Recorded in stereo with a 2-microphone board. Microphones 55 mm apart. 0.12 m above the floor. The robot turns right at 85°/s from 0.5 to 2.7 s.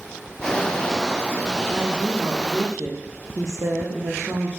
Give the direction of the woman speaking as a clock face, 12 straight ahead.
6 o'clock.